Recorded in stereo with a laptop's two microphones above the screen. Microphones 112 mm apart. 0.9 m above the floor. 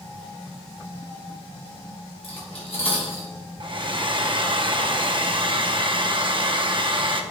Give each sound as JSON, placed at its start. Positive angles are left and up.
{"t": 2.2, "sound": "cutlery clinking", "side_deg": 60, "distance_m": 2.5}
{"t": 3.6, "sound": "a hair dryer", "side_deg": -45, "distance_m": 0.6}